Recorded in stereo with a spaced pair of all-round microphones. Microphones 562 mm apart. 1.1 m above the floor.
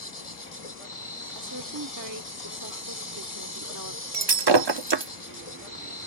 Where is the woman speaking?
35° right (ahead or behind).